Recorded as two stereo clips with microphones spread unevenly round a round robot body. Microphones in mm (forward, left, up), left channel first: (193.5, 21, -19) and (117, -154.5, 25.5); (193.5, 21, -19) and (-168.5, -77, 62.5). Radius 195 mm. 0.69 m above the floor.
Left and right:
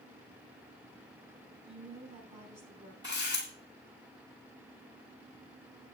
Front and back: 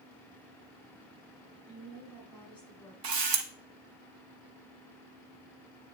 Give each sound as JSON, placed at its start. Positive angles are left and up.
{"t": 1.7, "sound": "a woman speaking", "azimuth_deg": -70, "distance_m": 5.0}
{"t": 3.0, "sound": "a camera shutter", "azimuth_deg": 165, "distance_m": 1.7}